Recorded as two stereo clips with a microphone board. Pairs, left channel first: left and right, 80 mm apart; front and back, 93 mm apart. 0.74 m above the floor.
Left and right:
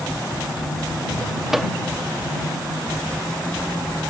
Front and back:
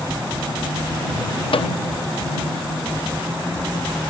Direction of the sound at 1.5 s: 5° right.